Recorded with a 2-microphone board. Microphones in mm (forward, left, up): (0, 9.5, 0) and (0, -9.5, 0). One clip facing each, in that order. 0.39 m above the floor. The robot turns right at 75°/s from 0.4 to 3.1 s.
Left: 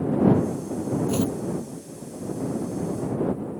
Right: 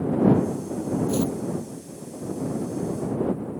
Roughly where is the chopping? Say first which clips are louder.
Even; left.